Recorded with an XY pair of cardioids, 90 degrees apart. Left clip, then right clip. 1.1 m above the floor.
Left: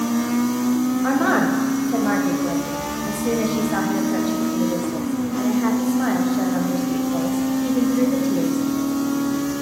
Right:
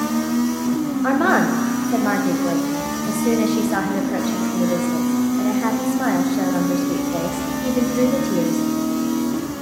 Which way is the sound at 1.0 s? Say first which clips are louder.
Right 3 dB; 20° right.